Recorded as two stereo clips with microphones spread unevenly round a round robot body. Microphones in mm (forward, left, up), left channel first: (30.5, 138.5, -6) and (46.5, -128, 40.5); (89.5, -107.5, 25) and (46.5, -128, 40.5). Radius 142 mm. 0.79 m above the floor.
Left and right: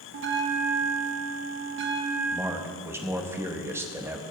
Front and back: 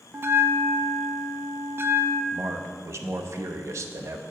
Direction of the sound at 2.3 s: 175° right.